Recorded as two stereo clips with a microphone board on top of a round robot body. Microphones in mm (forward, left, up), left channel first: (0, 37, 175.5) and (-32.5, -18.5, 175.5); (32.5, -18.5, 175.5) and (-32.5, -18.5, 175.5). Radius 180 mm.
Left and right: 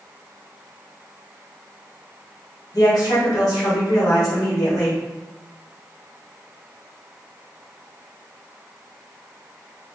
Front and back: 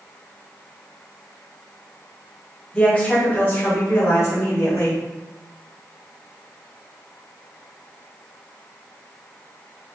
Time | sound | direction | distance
2.7 | a woman speaking | 75° left | 1.7 m